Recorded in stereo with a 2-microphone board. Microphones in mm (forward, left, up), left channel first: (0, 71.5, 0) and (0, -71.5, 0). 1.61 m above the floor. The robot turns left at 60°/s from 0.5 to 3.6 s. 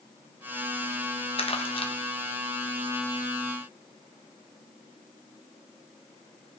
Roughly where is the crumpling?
Left.